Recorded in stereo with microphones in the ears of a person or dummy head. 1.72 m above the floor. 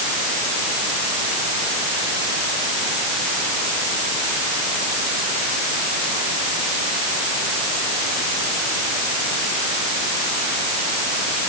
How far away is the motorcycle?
No motorcycle in this recording.